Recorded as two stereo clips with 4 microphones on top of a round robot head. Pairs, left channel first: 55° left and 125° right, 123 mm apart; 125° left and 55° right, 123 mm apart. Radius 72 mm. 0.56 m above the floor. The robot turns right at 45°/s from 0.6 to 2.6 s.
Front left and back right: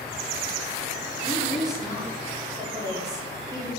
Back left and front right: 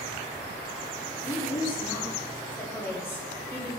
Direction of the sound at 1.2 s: 130° left.